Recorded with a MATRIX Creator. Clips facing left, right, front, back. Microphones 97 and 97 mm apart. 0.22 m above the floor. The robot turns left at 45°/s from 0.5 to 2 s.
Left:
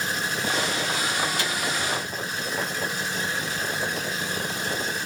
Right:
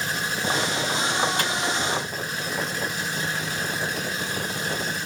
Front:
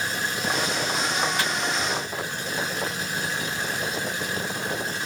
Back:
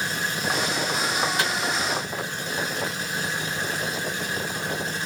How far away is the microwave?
About 1.8 m.